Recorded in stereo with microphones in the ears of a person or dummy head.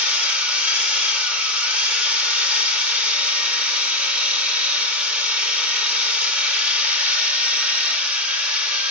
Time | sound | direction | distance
0.0 | a machine running | 5° right (ahead or behind) | 0.9 m